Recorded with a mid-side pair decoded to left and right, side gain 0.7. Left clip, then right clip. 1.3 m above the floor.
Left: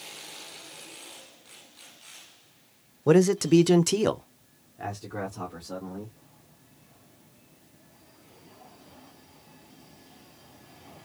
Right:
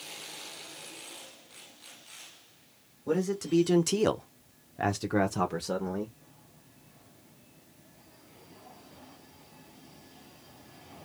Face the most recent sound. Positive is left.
turn(degrees=-65)